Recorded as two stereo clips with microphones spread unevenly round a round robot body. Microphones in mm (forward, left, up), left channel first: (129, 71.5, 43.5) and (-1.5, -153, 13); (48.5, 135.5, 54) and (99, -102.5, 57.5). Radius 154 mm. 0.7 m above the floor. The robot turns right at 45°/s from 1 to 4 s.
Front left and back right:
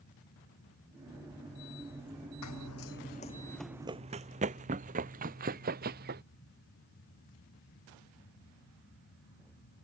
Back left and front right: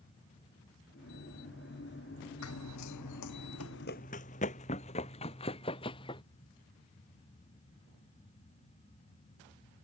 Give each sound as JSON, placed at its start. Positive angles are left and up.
{"t": 2.4, "sound": "running footsteps", "azimuth_deg": 80}